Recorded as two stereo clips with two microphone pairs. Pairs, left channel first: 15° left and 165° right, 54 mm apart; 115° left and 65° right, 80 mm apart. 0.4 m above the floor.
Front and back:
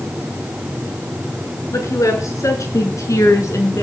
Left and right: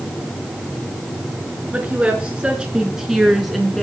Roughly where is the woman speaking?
Ahead.